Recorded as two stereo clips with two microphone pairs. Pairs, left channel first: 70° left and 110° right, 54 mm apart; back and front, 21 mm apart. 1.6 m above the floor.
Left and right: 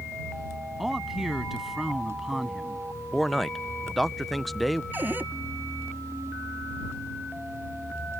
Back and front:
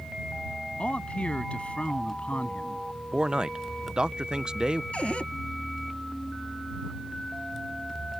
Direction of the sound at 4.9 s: 165° right.